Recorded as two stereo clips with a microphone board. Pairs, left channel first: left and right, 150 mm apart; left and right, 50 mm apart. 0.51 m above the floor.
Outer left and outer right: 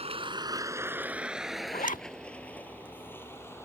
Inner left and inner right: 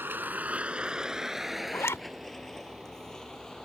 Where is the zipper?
60° left (ahead or behind).